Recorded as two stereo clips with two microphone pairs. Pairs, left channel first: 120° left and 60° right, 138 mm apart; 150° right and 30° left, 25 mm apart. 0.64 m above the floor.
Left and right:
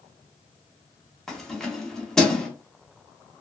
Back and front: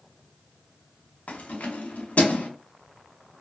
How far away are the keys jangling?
About 0.6 m.